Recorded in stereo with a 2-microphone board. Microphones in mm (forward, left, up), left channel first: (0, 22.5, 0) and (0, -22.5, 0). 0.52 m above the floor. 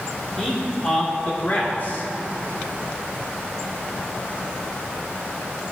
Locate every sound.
0.4 s a man speaking: 10° left (ahead or behind), 1.6 m; by 2.1 s 50° left (ahead or behind), 1.5 m